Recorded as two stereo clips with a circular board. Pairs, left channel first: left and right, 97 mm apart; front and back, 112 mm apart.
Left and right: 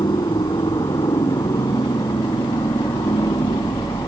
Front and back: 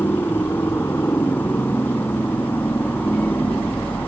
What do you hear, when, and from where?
0.0 s a helicopter: 65° left; by 4.1 s 70° left